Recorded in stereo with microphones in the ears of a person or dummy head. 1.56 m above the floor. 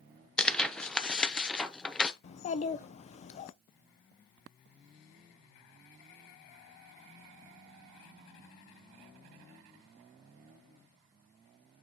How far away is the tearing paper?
About 0.6 m.